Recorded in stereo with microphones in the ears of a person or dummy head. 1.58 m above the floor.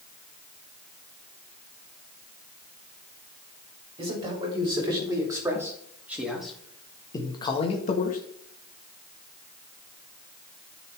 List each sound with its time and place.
4.0 s a man speaking: 30° right (ahead or behind), 4 m; by 8.2 s 45° left (ahead or behind), 1.7 m